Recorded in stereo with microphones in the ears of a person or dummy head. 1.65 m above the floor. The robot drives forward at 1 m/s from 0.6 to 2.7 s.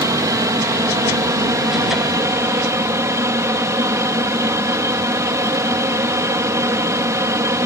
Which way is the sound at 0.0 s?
20° right (ahead or behind).